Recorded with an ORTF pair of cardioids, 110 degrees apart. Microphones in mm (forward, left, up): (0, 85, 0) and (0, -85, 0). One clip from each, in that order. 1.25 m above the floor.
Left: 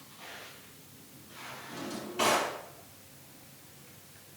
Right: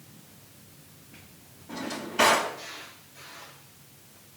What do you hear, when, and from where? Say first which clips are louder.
1.7 s a drawer: right 7 dB; 60° right, 4 m